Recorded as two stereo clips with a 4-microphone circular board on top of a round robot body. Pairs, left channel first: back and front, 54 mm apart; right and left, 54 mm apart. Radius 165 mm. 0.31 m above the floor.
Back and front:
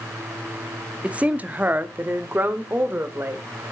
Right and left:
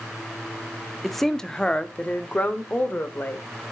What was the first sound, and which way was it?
A woman speaking, straight ahead.